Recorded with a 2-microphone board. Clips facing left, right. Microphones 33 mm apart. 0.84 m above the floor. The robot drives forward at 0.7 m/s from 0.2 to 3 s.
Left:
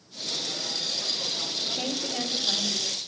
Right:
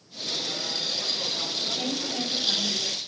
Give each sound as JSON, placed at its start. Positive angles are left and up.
{"t": 1.6, "sound": "a woman speaking", "side_deg": 35, "distance_m": 3.0}